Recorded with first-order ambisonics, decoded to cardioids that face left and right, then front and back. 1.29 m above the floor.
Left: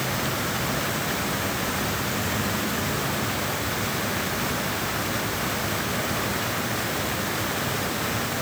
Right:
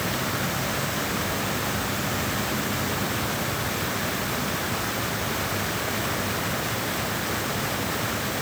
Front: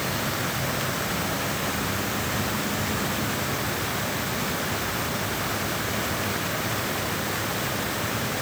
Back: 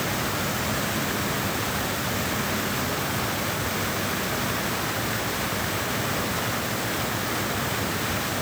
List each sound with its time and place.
Only background noise.